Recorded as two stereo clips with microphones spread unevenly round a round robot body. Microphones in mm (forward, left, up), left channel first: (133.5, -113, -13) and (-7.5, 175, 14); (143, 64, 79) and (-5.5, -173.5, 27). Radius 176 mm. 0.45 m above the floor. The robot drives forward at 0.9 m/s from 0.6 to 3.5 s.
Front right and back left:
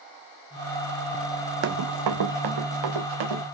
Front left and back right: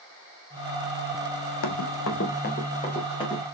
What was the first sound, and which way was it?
Running footsteps, 75° left.